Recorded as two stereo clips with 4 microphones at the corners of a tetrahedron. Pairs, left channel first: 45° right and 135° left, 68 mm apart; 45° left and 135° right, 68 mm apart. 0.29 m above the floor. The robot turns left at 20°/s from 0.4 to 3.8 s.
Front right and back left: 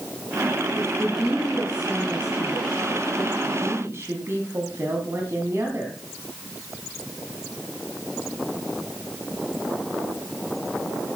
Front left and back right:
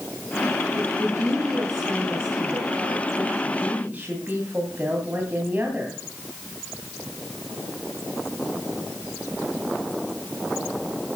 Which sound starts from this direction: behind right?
A woman speaking, at 0.7 s.